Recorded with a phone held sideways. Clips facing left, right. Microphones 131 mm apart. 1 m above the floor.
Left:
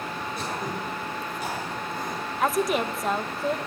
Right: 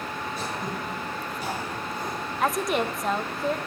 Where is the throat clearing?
50° left (ahead or behind), 4.5 m.